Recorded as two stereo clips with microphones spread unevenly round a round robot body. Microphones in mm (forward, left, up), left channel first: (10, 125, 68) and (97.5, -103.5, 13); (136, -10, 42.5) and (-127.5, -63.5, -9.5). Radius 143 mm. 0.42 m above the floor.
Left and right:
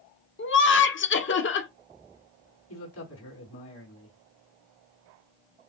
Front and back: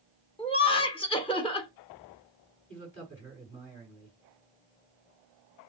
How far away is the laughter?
About 1.2 m.